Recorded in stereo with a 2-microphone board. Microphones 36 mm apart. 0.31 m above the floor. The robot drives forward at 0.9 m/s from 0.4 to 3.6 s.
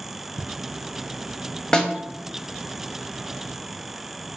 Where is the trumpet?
I don't hear a trumpet.